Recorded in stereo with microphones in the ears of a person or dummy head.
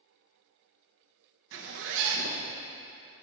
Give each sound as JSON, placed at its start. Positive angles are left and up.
{"t": 1.5, "sound": "a zipper", "side_deg": -65, "distance_m": 1.3}